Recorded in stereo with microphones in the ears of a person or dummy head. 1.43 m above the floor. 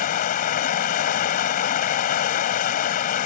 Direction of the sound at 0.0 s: 45° left (ahead or behind).